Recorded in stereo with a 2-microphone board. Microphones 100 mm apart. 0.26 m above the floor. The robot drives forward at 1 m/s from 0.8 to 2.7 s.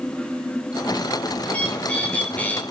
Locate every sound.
1.4 s a bird: 10° left (ahead or behind), 5 m; by 2.6 s 15° left (ahead or behind), 4 m